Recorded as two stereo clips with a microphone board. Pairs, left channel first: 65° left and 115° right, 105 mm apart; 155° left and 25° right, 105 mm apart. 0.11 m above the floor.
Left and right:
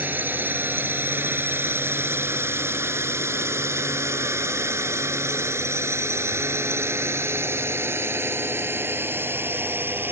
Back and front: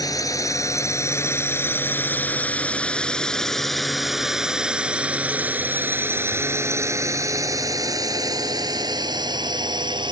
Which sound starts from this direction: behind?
A drone, at 0.0 s.